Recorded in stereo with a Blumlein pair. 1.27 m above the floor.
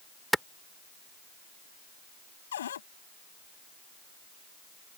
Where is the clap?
Straight ahead.